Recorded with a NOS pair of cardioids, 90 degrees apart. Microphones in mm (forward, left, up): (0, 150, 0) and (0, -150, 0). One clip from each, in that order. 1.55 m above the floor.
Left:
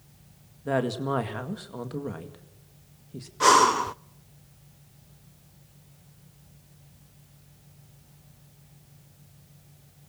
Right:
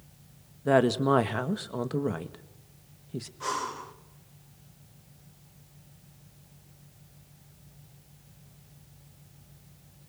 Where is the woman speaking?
30° right, 1.9 m.